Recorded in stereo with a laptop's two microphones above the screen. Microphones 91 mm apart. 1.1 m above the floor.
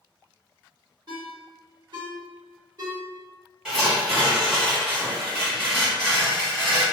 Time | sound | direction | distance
1.1 | a ringtone | 55° right (ahead or behind) | 1.4 m
3.6 | tearing paper | 10° right (ahead or behind) | 1.3 m